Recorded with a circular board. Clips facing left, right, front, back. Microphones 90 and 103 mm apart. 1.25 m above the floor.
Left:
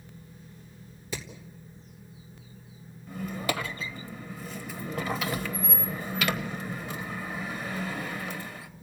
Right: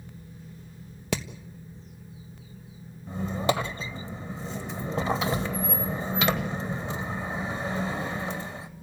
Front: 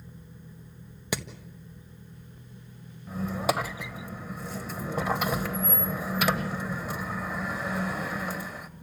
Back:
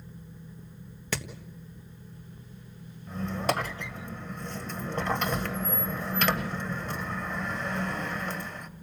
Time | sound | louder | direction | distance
1.1 | hammering | right 7 dB, front 2 dB | 75° right | 1.5 m
3.1 | a squeak | right 5 dB, front 1 dB | 75° right | 1.1 m